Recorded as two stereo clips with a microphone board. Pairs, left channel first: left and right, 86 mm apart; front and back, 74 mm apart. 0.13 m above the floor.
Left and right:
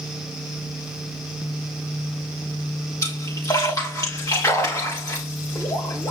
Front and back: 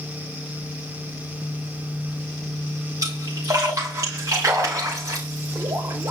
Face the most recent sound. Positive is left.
turn(degrees=140)